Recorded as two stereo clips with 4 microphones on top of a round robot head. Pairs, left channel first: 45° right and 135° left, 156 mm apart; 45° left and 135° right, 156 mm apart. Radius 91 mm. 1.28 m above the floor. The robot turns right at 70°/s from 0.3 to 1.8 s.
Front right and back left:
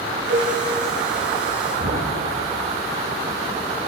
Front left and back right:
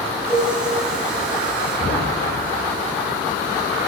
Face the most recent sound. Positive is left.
turn(degrees=95)